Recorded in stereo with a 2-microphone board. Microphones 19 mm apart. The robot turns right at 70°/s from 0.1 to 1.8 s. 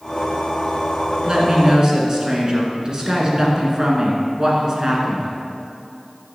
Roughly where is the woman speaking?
Right.